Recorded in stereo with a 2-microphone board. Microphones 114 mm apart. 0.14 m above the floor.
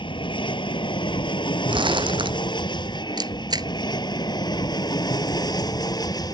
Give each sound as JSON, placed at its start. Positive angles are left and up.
{"t": 0.0, "sound": "an aircraft", "side_deg": 50}
{"t": 1.7, "sound": "crumpling", "side_deg": -50}
{"t": 3.2, "sound": "a camera shutter", "side_deg": -40}